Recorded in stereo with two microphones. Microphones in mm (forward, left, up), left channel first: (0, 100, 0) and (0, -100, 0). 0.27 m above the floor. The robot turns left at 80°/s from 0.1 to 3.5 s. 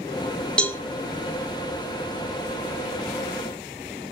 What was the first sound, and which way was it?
A cowbell, 5° left (ahead or behind).